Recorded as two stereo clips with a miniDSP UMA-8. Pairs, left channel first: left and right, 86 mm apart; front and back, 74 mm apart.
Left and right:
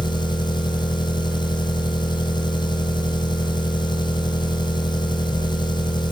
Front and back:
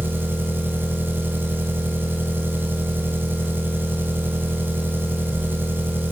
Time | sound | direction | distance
0.0 | an engine running | 120° left | 2 m